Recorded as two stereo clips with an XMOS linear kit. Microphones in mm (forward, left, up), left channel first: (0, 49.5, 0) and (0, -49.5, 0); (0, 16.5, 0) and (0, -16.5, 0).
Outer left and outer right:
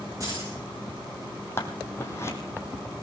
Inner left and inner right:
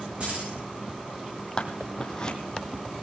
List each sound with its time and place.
0.2 s keys jangling: 40° right (ahead or behind), 8.5 m
1.6 s scissors: 25° left (ahead or behind), 2 m